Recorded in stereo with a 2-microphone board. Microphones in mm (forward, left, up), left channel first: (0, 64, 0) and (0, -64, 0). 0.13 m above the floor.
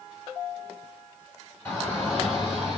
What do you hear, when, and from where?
1.6 s a shout: 20° left (ahead or behind), 1.6 m; by 2.8 s 5° right (ahead or behind), 1.5 m